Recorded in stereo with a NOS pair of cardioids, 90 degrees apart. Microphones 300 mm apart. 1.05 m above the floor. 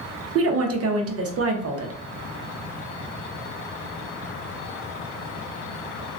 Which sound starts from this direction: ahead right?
A woman speaking, at 0.3 s.